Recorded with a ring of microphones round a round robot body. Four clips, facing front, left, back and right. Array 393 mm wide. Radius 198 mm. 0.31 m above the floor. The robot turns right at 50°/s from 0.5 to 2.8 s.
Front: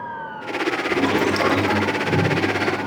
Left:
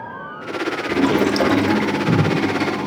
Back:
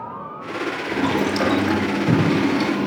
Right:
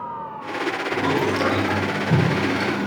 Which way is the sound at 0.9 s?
80° left.